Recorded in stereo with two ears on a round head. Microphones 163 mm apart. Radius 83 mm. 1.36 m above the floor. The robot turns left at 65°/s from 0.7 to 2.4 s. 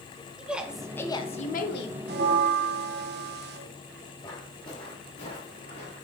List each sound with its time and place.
0.4 s a woman speaking: 175° right, 1.4 m; by 2.0 s 105° left, 1.4 m
2.1 s a bell: 55° right (ahead or behind), 1.3 m; by 3.6 s 60° right (ahead or behind), 1.3 m
4.2 s footsteps: 20° left (ahead or behind), 3.5 m; by 6.0 s 40° left (ahead or behind), 4 m